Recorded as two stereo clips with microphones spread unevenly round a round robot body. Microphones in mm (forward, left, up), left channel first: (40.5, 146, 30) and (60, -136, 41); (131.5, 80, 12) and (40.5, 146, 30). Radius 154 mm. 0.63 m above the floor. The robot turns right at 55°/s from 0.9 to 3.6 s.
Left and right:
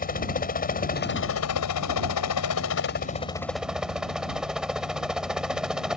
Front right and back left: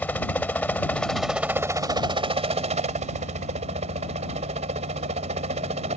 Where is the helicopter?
40° left; by 6.0 s 175° right.